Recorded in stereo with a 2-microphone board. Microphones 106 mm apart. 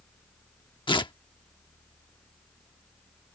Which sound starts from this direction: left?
Tearing paper, at 0.9 s.